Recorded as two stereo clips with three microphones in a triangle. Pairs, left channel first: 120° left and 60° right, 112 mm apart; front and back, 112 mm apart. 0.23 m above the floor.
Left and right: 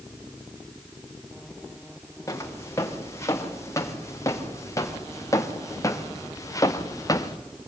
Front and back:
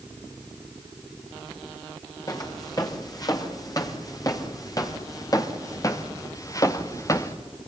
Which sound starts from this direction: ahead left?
Footsteps, at 2.3 s.